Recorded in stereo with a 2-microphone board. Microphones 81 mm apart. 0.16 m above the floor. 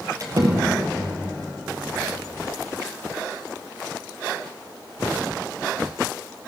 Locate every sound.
0.2 s a door slam: 45° right (ahead or behind), 3 m